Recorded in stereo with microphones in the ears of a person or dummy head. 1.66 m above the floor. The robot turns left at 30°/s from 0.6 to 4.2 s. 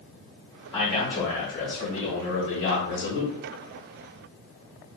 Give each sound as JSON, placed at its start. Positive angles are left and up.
{"t": 0.7, "sound": "a man speaking", "azimuth_deg": 170, "distance_m": 1.2}